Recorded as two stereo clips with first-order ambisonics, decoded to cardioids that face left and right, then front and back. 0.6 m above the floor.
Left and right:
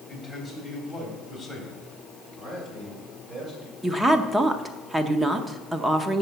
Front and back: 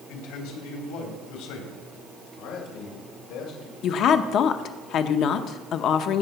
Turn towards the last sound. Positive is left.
turn(degrees=-15)